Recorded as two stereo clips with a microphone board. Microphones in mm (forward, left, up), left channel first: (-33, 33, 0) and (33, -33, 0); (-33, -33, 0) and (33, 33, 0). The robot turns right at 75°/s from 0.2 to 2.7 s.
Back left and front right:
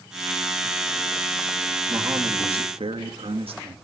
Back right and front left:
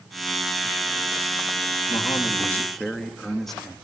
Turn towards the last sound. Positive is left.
turn(degrees=-50)